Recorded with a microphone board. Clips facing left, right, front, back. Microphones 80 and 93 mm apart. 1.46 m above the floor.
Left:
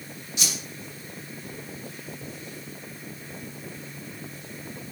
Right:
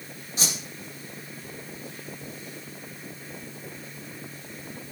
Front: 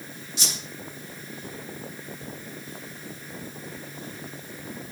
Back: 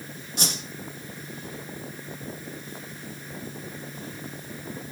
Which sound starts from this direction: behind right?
A whoosh, at 0.4 s.